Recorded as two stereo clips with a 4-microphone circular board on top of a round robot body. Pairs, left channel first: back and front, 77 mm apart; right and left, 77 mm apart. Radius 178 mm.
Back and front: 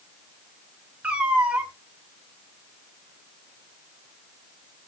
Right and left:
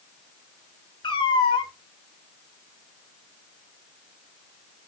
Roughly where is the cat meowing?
Right.